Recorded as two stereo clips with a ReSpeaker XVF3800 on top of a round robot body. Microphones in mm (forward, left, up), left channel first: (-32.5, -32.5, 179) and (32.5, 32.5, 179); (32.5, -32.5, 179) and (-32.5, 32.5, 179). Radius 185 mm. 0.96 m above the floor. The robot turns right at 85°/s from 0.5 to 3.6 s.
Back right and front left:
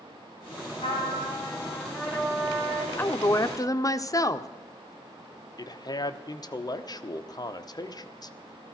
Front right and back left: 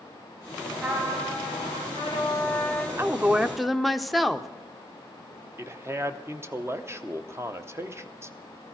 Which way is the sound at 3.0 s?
170° left.